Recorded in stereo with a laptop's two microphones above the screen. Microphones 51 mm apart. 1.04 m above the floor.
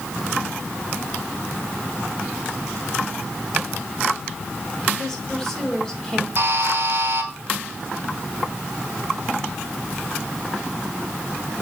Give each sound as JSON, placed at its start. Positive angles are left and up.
{"t": 5.0, "sound": "a woman speaking", "side_deg": 15, "distance_m": 3.0}
{"t": 6.4, "sound": "a buzzer", "side_deg": -55, "distance_m": 2.5}